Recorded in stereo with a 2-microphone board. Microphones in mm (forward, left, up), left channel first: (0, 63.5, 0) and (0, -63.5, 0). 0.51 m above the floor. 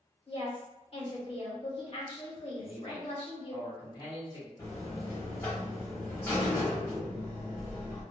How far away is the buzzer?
About 1.2 m.